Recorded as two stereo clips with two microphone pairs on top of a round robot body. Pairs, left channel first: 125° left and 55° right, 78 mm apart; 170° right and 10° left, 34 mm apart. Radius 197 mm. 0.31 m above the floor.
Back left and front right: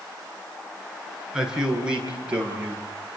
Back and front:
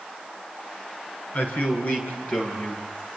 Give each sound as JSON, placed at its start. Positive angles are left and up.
{"t": 1.3, "sound": "a man speaking", "azimuth_deg": -135, "distance_m": 6.5}